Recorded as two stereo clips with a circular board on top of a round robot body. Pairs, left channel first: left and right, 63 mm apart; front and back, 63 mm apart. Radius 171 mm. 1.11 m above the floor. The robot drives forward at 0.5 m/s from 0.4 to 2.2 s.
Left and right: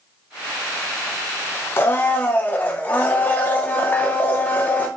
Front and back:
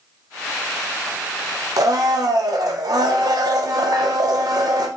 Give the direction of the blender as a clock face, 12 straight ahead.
7 o'clock.